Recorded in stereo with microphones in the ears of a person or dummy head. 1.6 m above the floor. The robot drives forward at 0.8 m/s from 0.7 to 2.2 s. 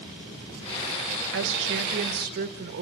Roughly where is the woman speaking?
Right.